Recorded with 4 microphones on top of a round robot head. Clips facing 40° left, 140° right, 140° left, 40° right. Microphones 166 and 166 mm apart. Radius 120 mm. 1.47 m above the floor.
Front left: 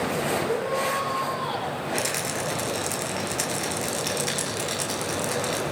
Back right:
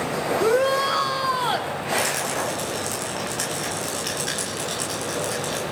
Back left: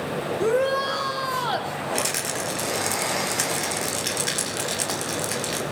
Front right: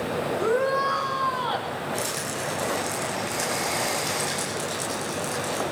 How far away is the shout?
About 3 m.